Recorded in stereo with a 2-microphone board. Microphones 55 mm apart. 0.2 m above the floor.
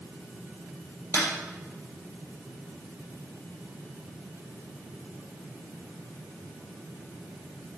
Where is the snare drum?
65° left (ahead or behind), 4.5 m.